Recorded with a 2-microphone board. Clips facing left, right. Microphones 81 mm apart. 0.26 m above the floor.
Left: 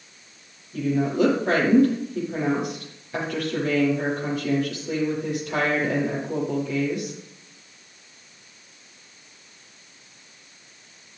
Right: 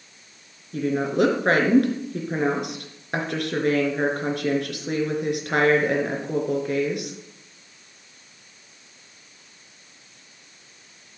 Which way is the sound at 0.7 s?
70° right (ahead or behind).